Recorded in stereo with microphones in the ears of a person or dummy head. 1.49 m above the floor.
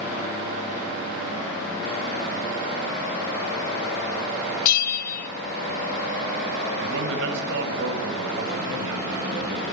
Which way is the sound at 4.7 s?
50° left (ahead or behind).